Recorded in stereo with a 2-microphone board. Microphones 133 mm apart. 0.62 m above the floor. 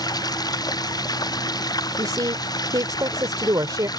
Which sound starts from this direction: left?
Running water, at 0.0 s.